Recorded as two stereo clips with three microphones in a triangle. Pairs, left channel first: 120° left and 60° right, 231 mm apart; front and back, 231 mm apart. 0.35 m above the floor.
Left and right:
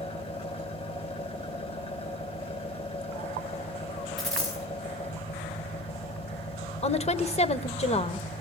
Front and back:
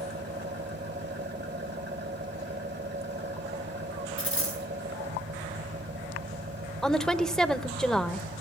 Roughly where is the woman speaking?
Left.